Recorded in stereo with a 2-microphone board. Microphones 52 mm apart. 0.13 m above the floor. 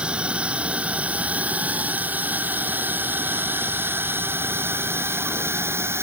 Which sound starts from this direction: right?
A drone, at 0.0 s.